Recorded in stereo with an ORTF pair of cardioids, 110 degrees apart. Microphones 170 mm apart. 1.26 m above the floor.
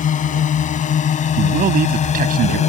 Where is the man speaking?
55° right.